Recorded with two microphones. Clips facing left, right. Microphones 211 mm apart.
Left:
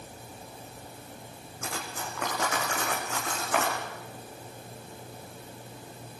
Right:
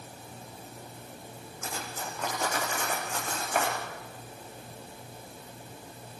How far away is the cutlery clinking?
About 6 m.